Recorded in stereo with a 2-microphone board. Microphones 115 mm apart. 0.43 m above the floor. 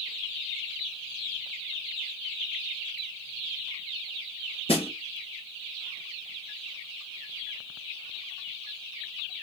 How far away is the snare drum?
About 4 m.